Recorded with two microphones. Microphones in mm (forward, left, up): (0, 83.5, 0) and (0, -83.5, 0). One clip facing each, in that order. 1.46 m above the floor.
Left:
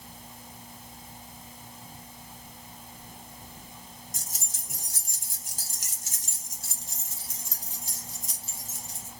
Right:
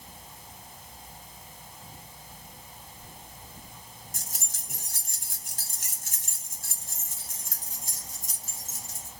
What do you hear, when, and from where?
4.1 s keys jangling: 60° right (ahead or behind), 1.2 m; by 9.1 s 45° right (ahead or behind), 3 m